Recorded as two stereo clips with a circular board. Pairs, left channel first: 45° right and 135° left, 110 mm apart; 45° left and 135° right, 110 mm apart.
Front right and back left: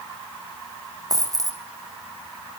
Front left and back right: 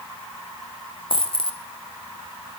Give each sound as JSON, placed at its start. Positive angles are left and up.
{"t": 1.1, "sound": "a dropped coin", "azimuth_deg": 80, "distance_m": 2.5}